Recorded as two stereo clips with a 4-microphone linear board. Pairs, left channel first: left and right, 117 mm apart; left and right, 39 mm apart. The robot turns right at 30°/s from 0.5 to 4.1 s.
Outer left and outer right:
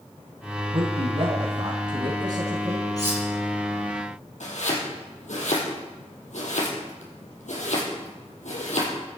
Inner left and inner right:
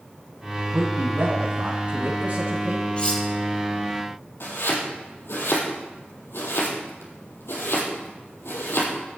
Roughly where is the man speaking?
Right.